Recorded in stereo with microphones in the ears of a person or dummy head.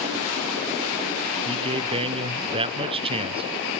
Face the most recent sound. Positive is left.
turn(degrees=-30)  # may be behind; listen again after turning